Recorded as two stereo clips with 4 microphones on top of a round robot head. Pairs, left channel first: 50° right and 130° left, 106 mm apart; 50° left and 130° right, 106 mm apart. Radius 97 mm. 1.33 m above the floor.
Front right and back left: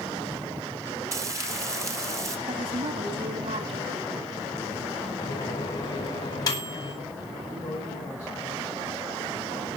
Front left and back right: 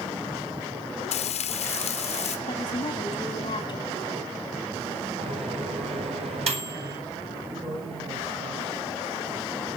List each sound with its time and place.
1.1 s frying: 65° left, 0.9 m
2.5 s a woman speaking: 95° left, 3 m
5.2 s a microwave: 105° right, 9 m
7.5 s a man speaking: 110° right, 8.5 m